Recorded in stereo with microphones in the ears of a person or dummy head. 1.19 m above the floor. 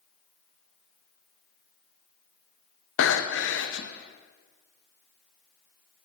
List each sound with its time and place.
3.0 s breathing: 60° left (ahead or behind), 0.7 m